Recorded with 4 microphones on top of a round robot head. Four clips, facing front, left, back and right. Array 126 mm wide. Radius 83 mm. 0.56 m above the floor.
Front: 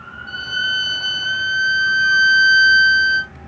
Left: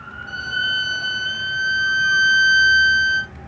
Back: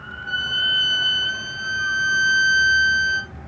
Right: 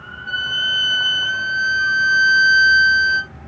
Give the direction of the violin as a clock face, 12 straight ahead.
2 o'clock.